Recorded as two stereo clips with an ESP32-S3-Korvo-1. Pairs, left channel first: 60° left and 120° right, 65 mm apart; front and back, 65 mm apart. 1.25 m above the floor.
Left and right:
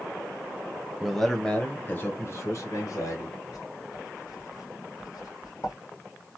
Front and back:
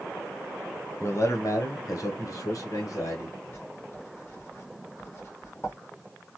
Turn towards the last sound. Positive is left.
turn(degrees=55)